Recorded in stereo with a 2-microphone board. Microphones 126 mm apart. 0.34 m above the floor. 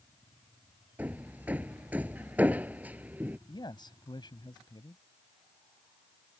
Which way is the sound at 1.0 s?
15° right (ahead or behind).